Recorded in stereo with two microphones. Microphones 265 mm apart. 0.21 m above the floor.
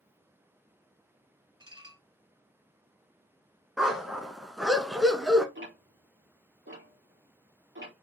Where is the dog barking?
Centre (ahead or behind), 0.8 m.